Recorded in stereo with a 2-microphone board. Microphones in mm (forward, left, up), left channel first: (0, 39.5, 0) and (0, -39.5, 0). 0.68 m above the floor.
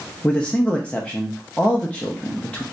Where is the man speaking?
15° left (ahead or behind), 0.5 m.